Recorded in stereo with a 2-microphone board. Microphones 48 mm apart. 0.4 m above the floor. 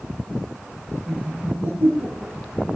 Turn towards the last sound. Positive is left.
turn(degrees=-45)  # may be behind; listen again after turning